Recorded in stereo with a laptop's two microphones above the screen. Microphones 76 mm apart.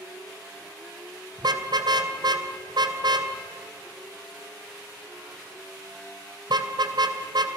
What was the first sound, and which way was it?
A car horn, 65° right (ahead or behind).